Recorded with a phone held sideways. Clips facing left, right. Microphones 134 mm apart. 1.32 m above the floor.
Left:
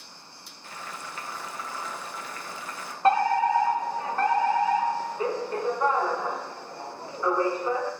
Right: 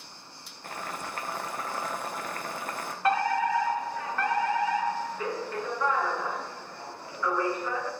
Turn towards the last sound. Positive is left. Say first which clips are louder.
# left 4 dB
turn(degrees=30)  # may be behind; listen again after turning